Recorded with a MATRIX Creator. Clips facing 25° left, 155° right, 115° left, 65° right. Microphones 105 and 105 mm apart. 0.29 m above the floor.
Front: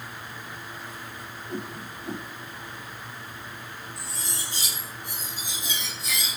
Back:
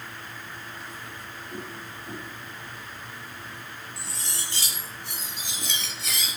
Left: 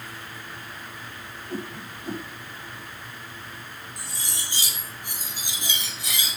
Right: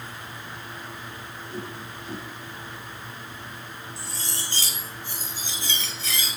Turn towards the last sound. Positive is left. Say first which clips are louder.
# front 1 dB, right 2 dB
turn(degrees=-175)